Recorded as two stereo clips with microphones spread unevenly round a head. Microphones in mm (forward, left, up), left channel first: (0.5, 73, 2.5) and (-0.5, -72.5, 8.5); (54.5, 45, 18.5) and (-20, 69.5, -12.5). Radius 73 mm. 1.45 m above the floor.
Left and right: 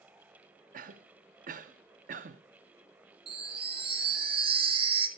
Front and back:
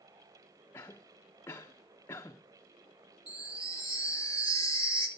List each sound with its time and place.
0.7 s a cough: 70° right, 0.7 m
3.3 s a chime: 145° right, 1.1 m